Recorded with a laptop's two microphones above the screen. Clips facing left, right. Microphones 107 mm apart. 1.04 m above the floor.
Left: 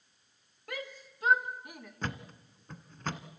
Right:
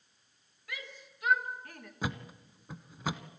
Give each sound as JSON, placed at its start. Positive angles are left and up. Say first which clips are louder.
{"t": 0.7, "sound": "a shout", "louder": "left 5 dB", "side_deg": 45, "distance_m": 2.0}
{"t": 2.0, "sound": "a thud", "louder": "right 2 dB", "side_deg": -10, "distance_m": 1.0}